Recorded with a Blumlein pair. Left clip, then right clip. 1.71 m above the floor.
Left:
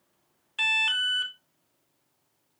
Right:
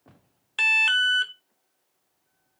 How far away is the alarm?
About 0.8 m.